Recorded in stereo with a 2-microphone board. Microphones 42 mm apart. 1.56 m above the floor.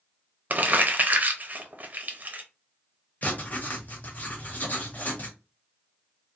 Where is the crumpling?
40° right (ahead or behind), 0.5 m.